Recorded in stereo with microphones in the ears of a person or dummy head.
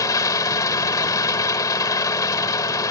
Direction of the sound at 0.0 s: 20° left (ahead or behind).